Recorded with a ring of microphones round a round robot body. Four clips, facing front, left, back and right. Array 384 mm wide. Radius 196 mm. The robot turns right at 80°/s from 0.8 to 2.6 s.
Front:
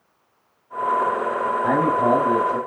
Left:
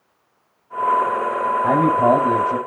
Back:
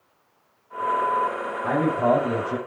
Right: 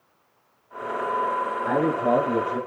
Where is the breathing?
No breathing in this recording.